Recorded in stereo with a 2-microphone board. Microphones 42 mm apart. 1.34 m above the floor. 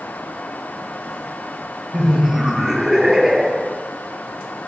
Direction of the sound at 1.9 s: 15° right (ahead or behind).